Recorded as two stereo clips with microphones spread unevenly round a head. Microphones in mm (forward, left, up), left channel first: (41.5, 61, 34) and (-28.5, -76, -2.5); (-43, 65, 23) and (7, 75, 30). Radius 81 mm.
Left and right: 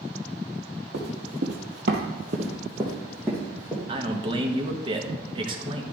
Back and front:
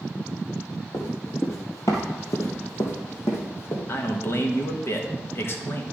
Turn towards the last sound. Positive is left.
turn(degrees=-160)